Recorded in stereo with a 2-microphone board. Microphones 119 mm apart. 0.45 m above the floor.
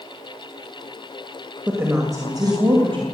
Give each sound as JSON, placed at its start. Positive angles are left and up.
{"t": 1.7, "sound": "a woman speaking", "side_deg": -15, "distance_m": 2.0}